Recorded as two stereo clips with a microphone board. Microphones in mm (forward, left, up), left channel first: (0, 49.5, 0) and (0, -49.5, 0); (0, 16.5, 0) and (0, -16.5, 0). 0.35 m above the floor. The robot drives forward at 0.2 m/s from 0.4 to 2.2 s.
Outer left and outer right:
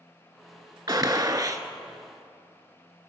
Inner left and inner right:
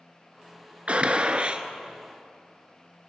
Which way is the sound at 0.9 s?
45° right (ahead or behind).